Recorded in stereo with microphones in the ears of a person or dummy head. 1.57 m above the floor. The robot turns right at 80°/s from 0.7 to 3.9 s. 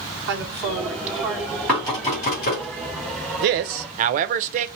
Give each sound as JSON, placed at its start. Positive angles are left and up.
{"t": 0.3, "sound": "a woman speaking", "azimuth_deg": -65, "distance_m": 1.8}
{"t": 1.7, "sound": "knocking", "side_deg": 5, "distance_m": 2.5}
{"t": 3.4, "sound": "a man speaking", "azimuth_deg": -95, "distance_m": 0.5}